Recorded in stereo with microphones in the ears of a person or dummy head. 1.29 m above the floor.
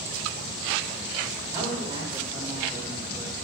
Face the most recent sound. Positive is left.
turn(degrees=-10)  # may be behind; listen again after turning